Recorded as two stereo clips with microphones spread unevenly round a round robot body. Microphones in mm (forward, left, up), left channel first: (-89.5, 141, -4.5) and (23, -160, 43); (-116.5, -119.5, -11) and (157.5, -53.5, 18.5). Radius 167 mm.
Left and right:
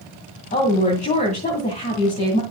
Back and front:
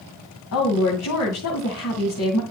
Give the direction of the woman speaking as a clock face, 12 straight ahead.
6 o'clock.